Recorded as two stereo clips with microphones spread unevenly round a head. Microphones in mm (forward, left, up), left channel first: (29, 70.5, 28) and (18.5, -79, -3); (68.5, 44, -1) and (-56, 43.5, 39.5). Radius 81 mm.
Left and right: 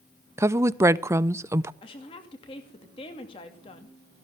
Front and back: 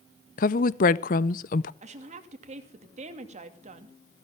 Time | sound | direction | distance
0.4 | a woman speaking | 20° right | 0.6 m
1.8 | a woman speaking | 150° left | 2.5 m